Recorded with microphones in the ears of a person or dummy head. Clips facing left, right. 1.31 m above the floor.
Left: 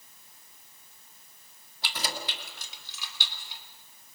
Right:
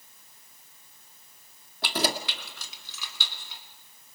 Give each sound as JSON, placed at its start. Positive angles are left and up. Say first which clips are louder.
{"t": 1.8, "sound": "keys jangling", "louder": "right 8 dB", "side_deg": -55, "distance_m": 1.5}